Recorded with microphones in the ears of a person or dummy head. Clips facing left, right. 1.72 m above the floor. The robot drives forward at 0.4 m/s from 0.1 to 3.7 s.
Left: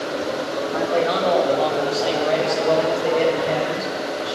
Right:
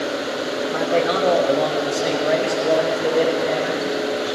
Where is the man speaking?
50° right (ahead or behind), 0.7 m; by 4.3 s 20° right (ahead or behind), 1.8 m.